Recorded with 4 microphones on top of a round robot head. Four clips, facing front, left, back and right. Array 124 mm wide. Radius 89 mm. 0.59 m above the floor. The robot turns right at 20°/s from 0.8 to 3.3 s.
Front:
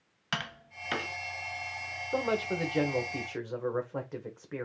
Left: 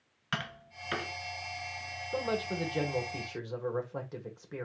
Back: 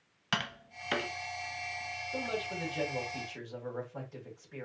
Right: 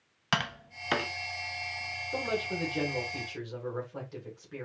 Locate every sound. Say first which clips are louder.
0.3 s tapping: right 6 dB, back 1 dB; 90° right, 0.7 m; by 1.1 s 85° right, 0.7 m
2.1 s a man speaking: even, front 7 dB; 5° left, 2 m; by 4.7 s 25° left, 2 m